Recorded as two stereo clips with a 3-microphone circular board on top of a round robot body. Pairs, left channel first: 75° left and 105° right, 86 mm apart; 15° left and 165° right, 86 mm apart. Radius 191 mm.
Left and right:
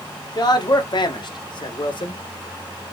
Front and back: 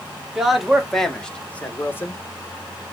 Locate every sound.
0.3 s a man speaking: 110° left, 1.8 m; by 2.2 s 70° left, 1.2 m